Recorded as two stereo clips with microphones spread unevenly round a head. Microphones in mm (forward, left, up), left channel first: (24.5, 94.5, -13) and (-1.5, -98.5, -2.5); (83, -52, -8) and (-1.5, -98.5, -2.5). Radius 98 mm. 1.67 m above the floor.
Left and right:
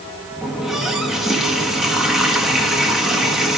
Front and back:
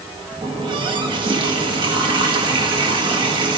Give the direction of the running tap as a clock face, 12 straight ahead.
6 o'clock.